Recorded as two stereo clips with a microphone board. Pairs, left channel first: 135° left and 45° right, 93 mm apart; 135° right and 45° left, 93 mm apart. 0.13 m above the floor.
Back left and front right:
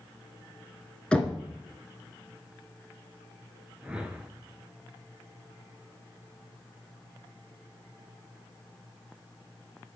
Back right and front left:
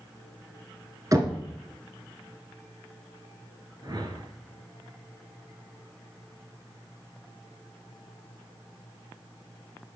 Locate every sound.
1.1 s knocking: 60° left, 1.0 m
3.8 s a whoosh: 30° left, 0.8 m